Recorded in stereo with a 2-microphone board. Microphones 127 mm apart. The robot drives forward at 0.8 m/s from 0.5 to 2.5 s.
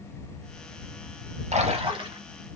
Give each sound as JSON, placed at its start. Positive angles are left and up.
{"t": 1.5, "sound": "a splash", "side_deg": -65, "distance_m": 0.7}